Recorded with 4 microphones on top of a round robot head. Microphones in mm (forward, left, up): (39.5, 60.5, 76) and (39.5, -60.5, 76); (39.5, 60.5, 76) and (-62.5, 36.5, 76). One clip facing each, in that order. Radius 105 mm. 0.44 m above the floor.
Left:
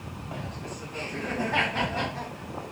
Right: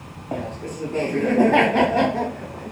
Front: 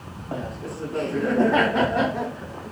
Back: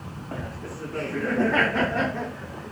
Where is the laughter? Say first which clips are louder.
Right 10 dB, front 5 dB; 60° right; by 2.7 s 65° right.